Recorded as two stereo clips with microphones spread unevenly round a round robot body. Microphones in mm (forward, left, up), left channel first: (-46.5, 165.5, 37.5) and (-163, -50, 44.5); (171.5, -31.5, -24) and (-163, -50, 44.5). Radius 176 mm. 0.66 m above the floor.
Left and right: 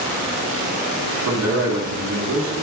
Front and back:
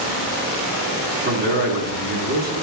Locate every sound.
1.2 s a man speaking: 115° right, 1.9 m